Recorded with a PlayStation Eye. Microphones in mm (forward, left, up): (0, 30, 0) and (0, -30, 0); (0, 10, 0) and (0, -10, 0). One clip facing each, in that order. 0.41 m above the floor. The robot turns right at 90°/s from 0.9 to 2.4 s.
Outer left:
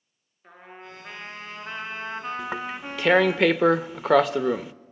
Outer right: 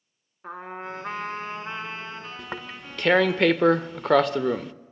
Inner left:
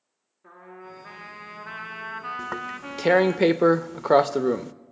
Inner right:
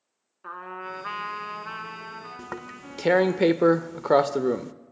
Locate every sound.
0.4 s a trumpet: 90° right, 2 m; by 3.4 s 45° left, 2 m
2.4 s tearing paper: 5° left (ahead or behind), 0.6 m